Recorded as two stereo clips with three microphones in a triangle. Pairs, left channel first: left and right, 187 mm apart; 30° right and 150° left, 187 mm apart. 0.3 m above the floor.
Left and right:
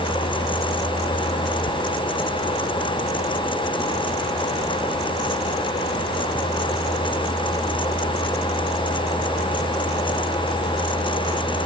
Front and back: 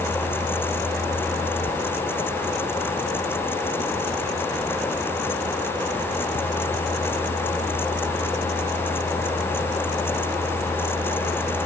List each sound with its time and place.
Only background noise.